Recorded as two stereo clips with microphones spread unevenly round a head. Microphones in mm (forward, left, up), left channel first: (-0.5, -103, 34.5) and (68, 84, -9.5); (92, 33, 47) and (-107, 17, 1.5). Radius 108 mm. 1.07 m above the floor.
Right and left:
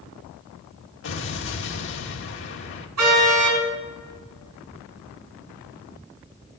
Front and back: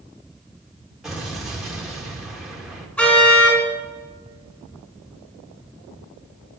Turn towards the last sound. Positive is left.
turn(degrees=85)